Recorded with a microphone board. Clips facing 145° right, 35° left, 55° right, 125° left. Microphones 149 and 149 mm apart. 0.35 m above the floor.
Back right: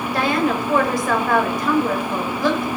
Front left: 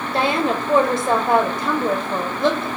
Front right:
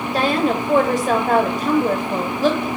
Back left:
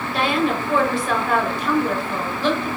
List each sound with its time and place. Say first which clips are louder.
0.1 s a woman speaking: even, front right 2 dB; 25° right, 1.5 m